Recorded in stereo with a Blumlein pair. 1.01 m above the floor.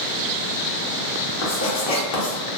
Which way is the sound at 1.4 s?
50° left.